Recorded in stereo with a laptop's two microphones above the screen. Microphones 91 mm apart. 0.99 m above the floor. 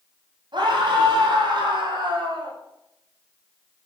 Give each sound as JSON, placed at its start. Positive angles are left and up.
{"t": 0.5, "sound": "a scream", "side_deg": -55, "distance_m": 7.5}